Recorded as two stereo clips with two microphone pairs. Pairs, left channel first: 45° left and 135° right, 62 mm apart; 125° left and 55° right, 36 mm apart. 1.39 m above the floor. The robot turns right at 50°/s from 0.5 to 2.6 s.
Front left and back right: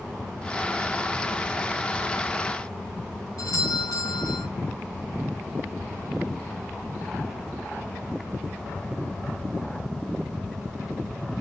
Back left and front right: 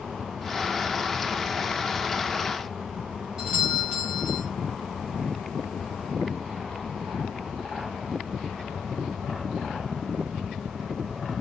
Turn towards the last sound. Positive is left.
turn(degrees=25)